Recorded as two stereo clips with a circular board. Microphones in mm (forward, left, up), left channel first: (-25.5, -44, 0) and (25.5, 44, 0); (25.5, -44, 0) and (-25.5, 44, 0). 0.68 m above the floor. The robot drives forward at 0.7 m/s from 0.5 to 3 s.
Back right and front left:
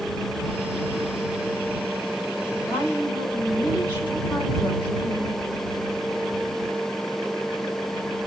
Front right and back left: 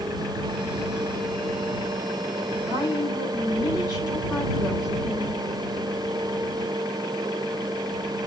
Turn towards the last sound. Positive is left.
turn(degrees=170)